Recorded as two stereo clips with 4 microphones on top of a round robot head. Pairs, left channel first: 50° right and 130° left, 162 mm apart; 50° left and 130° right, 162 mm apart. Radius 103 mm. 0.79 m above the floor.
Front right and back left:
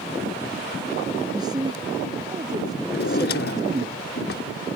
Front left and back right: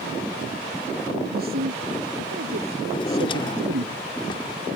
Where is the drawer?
15° right.